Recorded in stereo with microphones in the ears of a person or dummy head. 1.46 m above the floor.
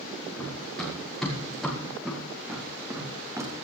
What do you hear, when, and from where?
0.4 s running footsteps: 5° left (ahead or behind), 6.5 m; by 3.5 s 20° right (ahead or behind), 3.5 m